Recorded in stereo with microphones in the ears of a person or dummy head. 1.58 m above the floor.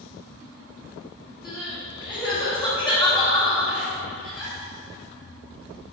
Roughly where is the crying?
Centre.